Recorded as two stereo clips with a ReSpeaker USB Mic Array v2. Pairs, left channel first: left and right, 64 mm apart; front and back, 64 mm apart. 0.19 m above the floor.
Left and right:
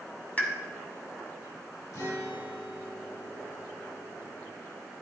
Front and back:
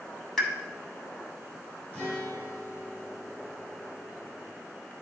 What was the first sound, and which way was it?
A pop, 75° left.